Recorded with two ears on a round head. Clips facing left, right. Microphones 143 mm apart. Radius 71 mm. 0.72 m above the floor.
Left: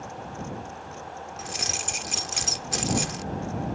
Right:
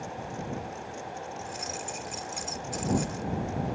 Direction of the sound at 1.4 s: 80° left.